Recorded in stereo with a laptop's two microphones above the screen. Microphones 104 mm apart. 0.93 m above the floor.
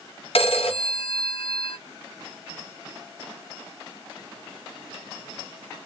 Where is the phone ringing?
70° left (ahead or behind), 0.7 m.